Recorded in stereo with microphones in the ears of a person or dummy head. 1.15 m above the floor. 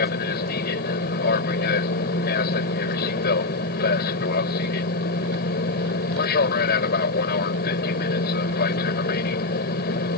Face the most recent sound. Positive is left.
turn(degrees=60)  # may be behind; listen again after turning